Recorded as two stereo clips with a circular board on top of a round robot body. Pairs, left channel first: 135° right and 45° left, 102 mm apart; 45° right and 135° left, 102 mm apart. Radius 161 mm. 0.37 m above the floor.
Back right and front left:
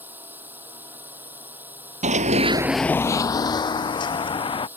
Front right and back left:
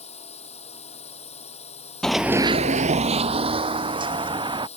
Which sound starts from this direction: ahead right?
A drone, at 0.0 s.